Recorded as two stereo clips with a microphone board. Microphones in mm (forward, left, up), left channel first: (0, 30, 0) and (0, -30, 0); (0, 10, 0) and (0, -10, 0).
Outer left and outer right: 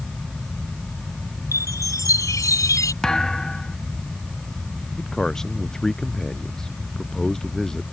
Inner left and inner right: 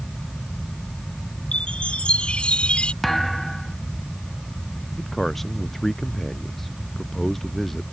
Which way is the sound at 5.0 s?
10° left (ahead or behind).